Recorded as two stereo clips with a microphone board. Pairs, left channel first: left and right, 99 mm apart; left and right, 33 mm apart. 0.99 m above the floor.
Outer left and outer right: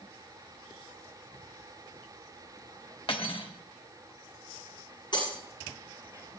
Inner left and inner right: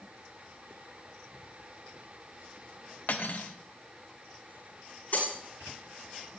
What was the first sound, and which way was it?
Cutlery clinking, 60° left (ahead or behind).